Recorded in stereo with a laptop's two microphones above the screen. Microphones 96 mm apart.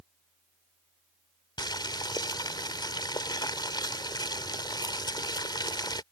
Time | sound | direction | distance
1.6 | boiling | 50° left (ahead or behind) | ?